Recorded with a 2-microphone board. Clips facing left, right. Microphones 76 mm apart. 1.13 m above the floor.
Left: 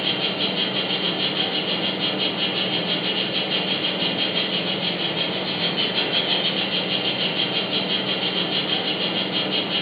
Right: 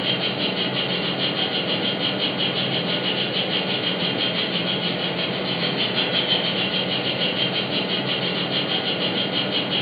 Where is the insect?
35° right (ahead or behind), 1.4 m.